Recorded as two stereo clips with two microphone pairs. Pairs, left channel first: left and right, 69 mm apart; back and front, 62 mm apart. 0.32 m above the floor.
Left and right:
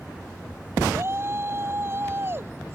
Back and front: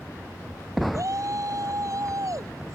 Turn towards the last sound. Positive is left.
turn(degrees=-30)